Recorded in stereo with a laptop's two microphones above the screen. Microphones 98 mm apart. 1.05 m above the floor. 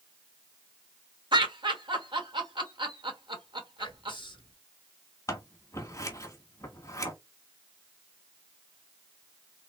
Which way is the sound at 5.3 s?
35° left (ahead or behind).